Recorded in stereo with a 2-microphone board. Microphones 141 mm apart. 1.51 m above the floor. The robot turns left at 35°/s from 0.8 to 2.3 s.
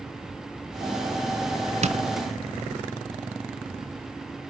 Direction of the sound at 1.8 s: 55° right (ahead or behind).